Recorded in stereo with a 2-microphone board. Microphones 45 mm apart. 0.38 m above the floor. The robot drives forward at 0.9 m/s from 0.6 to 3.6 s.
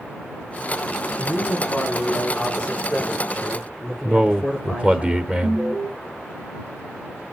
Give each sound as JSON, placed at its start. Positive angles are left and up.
{"t": 1.2, "sound": "a man speaking", "side_deg": 30, "distance_m": 3.5}
{"t": 4.0, "sound": "a man speaking", "side_deg": -25, "distance_m": 0.8}
{"t": 5.4, "sound": "an alarm", "side_deg": -30, "distance_m": 3.0}